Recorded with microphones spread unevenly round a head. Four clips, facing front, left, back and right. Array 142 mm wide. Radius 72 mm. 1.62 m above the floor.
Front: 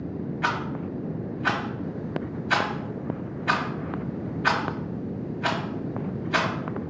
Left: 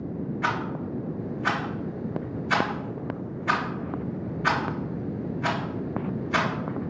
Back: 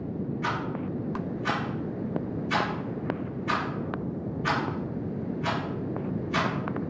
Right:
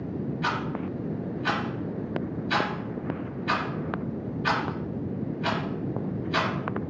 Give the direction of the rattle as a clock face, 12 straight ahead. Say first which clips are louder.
Left 2 dB, front 4 dB; 11 o'clock.